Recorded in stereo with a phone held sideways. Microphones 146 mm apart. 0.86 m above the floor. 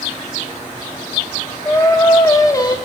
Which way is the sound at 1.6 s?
25° left (ahead or behind).